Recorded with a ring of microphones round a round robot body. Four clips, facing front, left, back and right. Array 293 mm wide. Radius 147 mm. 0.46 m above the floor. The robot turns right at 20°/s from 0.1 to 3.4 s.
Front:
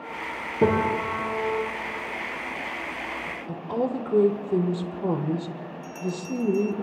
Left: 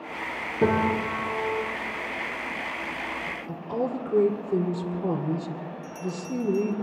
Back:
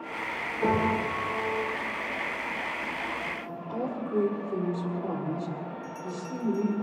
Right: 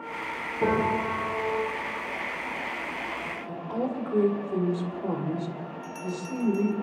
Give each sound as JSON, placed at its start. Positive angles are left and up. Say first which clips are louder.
{"t": 0.6, "sound": "a piano", "louder": "left 2 dB, front 4 dB", "azimuth_deg": 30, "distance_m": 7.5}
{"t": 3.5, "sound": "a woman speaking", "louder": "left 2 dB, front 8 dB", "azimuth_deg": 35, "distance_m": 1.8}
{"t": 5.8, "sound": "a bell", "louder": "left 1 dB, front 5 dB", "azimuth_deg": -15, "distance_m": 1.5}